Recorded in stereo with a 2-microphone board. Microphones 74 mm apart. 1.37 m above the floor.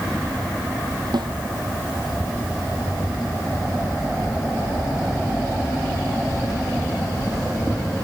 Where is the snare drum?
75° right (ahead or behind).